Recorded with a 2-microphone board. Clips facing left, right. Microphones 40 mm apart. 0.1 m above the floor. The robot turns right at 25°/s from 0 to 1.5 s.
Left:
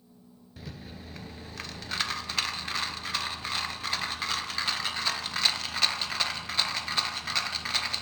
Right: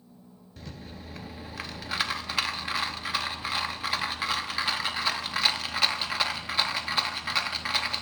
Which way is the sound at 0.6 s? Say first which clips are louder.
Even; 5° left (ahead or behind).